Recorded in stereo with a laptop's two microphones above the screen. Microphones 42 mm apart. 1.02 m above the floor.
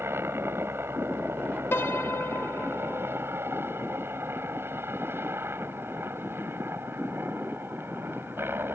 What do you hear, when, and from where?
0.0 s a helicopter: 75° right (ahead or behind); by 8.8 s 65° right (ahead or behind)
1.7 s a piano: 75° left (ahead or behind)